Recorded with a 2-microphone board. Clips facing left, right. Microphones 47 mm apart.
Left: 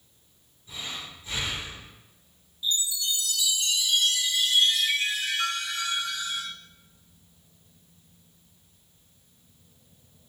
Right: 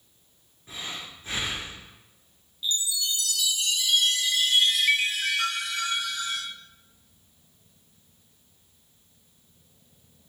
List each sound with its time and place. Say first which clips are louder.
0.7 s breathing: even; 55° right (ahead or behind), 1.2 m
2.6 s a chime: even; 70° right (ahead or behind), 0.7 m